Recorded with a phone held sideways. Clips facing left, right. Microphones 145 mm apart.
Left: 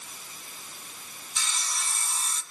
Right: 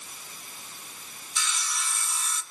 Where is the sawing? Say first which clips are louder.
Right 2 dB; 40° left (ahead or behind), 1.9 m.